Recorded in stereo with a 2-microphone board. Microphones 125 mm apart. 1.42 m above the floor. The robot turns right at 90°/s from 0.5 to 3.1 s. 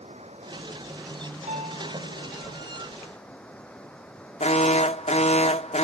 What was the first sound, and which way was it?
Running water, 65° right.